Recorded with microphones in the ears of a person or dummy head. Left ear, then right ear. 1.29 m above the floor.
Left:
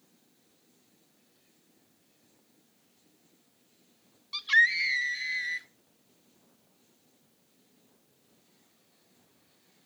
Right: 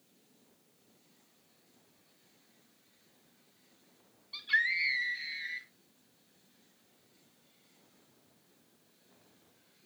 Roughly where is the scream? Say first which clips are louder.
Left 6 dB; left.